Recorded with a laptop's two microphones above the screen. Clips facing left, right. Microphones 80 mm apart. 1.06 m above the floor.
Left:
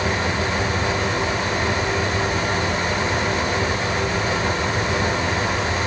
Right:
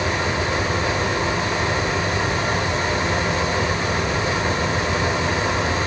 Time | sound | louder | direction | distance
0.0 | a fan | even | 25° right (ahead or behind) | 5.5 m